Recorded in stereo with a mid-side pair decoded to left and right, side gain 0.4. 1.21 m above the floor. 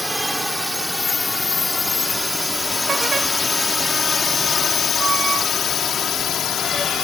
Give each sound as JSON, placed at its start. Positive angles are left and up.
{"t": 0.0, "sound": "a drone", "azimuth_deg": -5}